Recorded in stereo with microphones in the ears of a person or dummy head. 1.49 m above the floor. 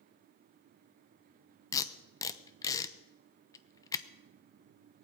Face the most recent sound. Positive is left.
turn(degrees=20)  # may be behind; listen again after turning